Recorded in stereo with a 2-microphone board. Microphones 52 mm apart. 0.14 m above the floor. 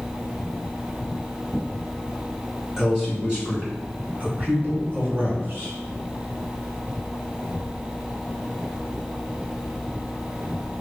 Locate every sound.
2.8 s a man speaking: 10° right (ahead or behind), 1.8 m; by 5.8 s 50° right (ahead or behind), 2.5 m